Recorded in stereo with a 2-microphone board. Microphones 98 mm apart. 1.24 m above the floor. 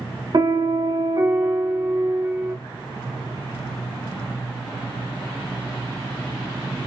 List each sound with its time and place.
0.3 s a piano: 45° right (ahead or behind), 2 m